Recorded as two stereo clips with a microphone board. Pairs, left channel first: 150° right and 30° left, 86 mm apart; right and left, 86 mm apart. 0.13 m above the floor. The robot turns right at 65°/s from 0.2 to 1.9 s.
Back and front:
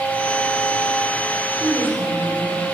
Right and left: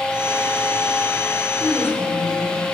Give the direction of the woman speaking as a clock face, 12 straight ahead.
12 o'clock.